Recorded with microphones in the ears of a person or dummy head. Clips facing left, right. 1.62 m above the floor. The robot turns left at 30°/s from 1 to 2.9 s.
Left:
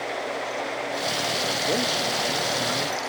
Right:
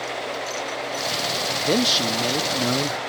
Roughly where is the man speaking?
Ahead right.